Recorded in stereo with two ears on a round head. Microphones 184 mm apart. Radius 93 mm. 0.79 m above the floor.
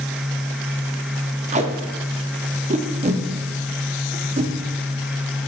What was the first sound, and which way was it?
Tape being pulled, 35° right (ahead or behind).